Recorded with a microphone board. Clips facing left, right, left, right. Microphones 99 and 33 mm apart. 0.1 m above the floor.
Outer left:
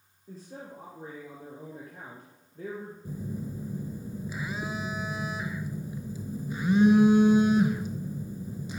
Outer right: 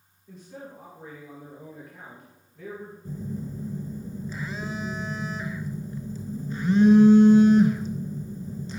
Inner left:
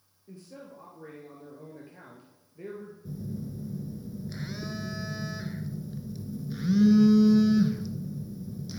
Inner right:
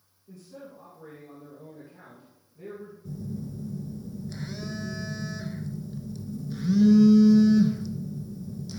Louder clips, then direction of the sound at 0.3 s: Outer right 1 dB, inner right 1 dB; 40° left (ahead or behind).